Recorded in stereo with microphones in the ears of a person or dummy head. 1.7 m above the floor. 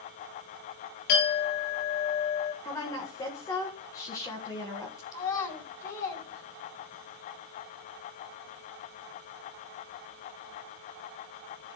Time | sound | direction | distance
1.1 | a clink | 60° left (ahead or behind) | 1.5 m
2.6 | a woman speaking | 15° left (ahead or behind) | 1.8 m
5.1 | a child speaking | 15° left (ahead or behind) | 3.5 m